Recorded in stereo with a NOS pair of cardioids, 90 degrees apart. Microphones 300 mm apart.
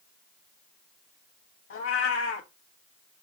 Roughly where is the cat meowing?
Ahead left.